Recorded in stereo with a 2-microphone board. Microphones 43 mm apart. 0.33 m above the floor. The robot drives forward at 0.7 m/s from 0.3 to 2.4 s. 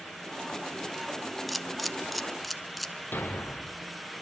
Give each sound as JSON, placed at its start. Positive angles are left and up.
{"t": 1.5, "sound": "a camera shutter", "side_deg": 0, "distance_m": 0.9}
{"t": 3.1, "sound": "a thud", "side_deg": 50, "distance_m": 3.5}